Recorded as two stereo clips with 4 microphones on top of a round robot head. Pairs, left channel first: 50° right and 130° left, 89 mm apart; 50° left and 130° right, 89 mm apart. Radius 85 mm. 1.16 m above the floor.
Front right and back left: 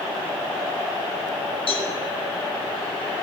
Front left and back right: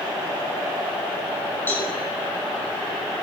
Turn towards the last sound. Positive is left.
turn(degrees=-20)